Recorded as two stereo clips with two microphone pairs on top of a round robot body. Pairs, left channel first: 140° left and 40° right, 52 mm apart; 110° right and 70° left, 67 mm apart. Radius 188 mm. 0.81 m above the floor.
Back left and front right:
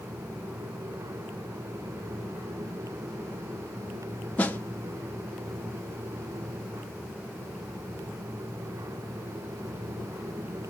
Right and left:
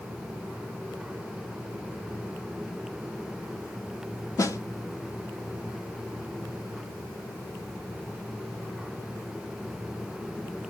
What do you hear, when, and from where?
4.4 s a snare drum: 155° right, 0.9 m